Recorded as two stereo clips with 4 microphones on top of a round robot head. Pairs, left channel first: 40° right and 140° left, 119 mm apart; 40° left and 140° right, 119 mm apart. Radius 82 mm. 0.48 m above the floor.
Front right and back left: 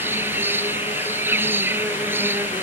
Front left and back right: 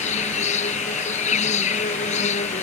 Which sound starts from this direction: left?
An insect, at 0.0 s.